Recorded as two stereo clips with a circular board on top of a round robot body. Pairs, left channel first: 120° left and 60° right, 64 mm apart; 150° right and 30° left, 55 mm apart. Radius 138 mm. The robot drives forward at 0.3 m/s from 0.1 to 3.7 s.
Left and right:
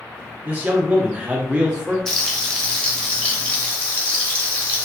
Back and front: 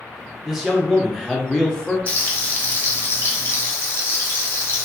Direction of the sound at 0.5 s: 45° right.